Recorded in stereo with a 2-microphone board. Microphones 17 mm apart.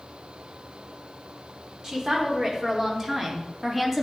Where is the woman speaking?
35° right (ahead or behind), 3.5 m; by 4.0 s 15° right (ahead or behind), 2.5 m.